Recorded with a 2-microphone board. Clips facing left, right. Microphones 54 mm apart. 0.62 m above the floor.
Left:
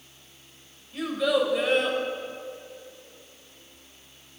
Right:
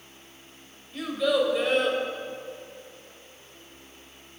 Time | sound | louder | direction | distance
0.9 | a child speaking | even | 5° left (ahead or behind) | 2.5 m